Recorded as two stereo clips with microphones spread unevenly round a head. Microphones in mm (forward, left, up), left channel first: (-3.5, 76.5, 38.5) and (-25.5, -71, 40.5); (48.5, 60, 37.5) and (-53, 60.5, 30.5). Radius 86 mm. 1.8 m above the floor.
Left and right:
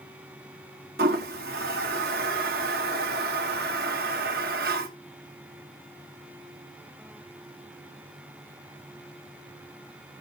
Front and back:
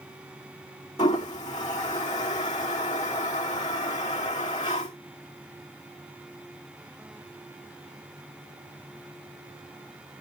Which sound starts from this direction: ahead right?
A toilet flushing, at 1.0 s.